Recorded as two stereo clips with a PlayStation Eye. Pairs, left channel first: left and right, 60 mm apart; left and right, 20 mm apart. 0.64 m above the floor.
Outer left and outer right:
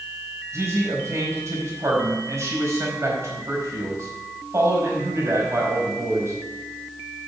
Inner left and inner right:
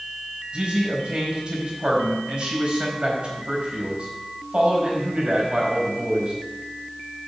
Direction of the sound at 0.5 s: 50° right (ahead or behind).